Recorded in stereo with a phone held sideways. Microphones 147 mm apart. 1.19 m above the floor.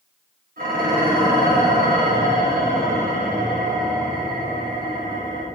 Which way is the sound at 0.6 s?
75° right (ahead or behind).